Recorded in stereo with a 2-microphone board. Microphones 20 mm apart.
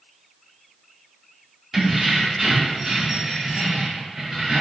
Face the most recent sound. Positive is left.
turn(degrees=-35)  # may be behind; listen again after turning